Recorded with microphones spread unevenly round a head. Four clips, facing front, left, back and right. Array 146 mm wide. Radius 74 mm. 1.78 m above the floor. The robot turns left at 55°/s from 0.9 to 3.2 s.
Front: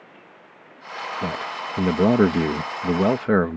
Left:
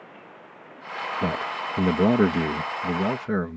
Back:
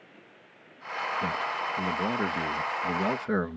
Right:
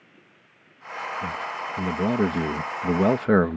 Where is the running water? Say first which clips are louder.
Left 12 dB, front 6 dB; 70° left; by 3.6 s 55° right.